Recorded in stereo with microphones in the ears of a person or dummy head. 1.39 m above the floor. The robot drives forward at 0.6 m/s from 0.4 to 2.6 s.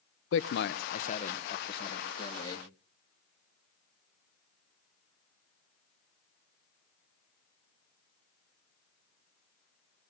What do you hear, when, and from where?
0.3 s a man speaking: 55° left (ahead or behind), 0.6 m; by 2.7 s 15° left (ahead or behind), 1.7 m